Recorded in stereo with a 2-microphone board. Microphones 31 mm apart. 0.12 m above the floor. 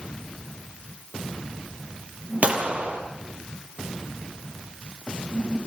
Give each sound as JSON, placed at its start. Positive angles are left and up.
{"t": 2.4, "sound": "a gunshot", "side_deg": -45, "distance_m": 3.5}